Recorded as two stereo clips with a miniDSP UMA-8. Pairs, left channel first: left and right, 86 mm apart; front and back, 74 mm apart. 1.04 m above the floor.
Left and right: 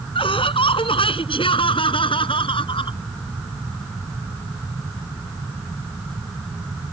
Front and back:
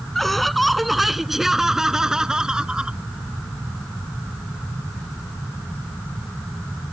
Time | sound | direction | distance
0.1 | laughter | 85° left | ?